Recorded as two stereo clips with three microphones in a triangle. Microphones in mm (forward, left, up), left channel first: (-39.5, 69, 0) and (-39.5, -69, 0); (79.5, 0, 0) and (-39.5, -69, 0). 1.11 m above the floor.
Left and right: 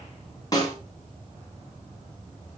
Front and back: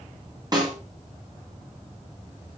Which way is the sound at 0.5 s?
150° left.